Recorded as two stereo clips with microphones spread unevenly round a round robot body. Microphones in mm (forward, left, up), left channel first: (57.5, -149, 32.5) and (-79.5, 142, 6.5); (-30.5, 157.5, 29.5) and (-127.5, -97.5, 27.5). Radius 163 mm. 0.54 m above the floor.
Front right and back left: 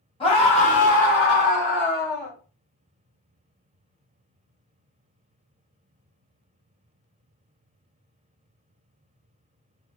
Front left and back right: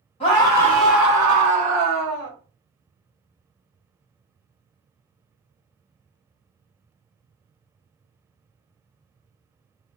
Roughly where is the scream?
Ahead.